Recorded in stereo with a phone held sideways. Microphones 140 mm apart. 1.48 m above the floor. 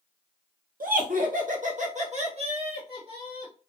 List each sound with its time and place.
0.8 s laughter: 80° right, 0.9 m; by 3.5 s 40° right (ahead or behind), 1.8 m